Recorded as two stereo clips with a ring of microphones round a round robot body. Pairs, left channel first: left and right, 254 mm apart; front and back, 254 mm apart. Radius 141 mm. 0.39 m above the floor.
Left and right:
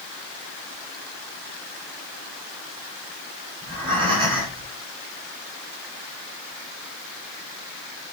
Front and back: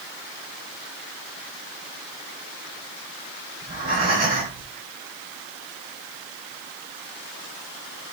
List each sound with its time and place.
3.6 s breathing: 125° right, 4.5 m